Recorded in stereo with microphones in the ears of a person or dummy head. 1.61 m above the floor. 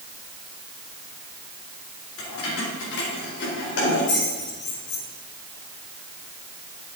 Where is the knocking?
No knocking in this recording.